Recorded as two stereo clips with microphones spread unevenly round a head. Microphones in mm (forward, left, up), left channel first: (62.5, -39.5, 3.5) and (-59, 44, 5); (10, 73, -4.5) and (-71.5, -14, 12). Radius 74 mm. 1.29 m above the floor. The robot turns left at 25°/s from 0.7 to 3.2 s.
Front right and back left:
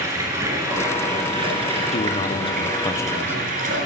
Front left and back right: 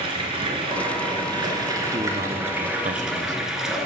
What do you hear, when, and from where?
0.0 s running water: 150° right, 1.9 m; by 3.9 s 150° left, 1.9 m
1.9 s a man speaking: 75° right, 0.8 m; by 3.4 s 110° right, 0.8 m